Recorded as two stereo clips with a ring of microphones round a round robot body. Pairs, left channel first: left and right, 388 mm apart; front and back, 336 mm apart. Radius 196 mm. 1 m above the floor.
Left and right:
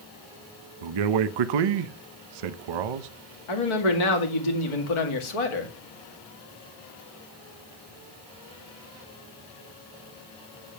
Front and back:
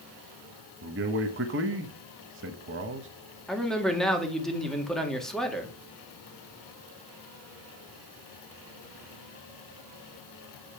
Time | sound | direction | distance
0.8 | a man speaking | 120° right | 0.7 m
3.5 | a man speaking | 90° left | 2 m